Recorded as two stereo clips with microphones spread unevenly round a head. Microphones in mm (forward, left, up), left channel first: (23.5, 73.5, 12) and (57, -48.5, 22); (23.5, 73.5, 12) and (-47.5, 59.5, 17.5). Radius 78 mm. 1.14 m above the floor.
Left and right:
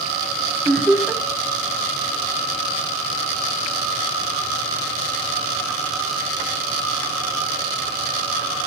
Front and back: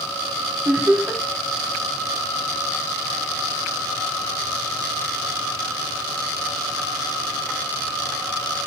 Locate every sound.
0.7 s laughter: 175° right, 0.6 m